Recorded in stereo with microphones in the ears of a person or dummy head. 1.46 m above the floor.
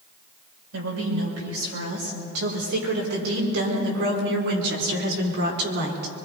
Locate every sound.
0.7 s a woman speaking: 80° right, 7 m; by 6.1 s 65° right (ahead or behind), 4.5 m